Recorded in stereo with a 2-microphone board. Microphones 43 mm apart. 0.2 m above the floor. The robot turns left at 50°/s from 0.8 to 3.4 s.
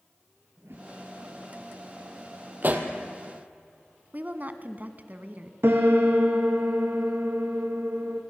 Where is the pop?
45° right (ahead or behind), 2 m; by 2.9 s 35° right (ahead or behind), 2 m.